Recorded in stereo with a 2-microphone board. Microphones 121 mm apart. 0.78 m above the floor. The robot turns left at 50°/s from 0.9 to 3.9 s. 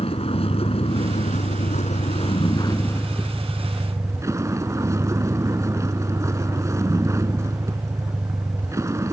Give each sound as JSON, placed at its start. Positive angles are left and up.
{"t": 0.0, "sound": "a vehicle", "azimuth_deg": 125}